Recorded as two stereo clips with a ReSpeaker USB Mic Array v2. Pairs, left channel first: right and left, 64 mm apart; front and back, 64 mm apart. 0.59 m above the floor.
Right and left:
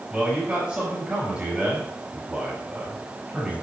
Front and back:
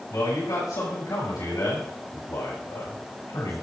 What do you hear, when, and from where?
0.1 s a man speaking: 15° left, 5 m